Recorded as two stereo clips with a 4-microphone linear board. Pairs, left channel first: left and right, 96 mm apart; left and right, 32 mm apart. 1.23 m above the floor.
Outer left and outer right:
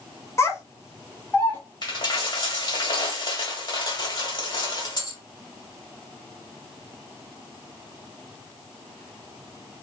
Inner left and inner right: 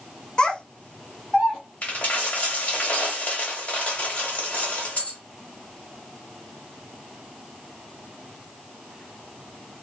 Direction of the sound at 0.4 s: 30° left (ahead or behind).